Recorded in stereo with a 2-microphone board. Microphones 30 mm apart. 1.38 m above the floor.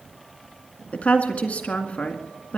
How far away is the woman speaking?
About 1.9 m.